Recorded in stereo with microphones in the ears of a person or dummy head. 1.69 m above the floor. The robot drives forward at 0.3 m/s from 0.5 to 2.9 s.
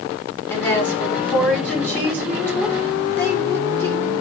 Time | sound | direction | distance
0.5 | a woman speaking | 10° left (ahead or behind) | 4.5 m